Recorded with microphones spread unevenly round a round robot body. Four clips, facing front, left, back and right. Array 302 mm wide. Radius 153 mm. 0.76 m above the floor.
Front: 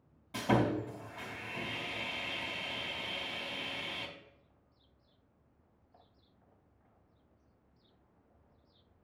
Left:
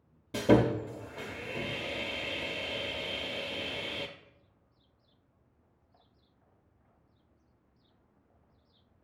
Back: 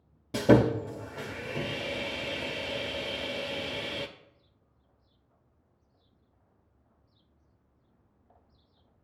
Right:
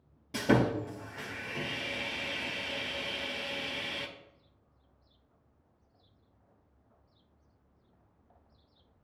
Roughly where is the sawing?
Behind.